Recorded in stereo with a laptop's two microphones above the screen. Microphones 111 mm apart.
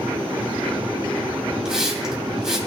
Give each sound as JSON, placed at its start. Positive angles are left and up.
{"t": 1.6, "sound": "a hiss", "side_deg": -5, "distance_m": 2.5}